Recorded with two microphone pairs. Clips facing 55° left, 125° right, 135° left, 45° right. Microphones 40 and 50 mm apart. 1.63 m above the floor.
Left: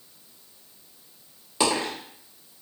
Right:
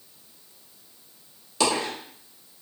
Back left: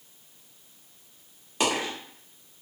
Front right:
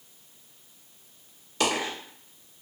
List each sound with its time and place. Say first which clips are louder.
1.6 s a dropped coin: even, even; 100° left, 1.3 m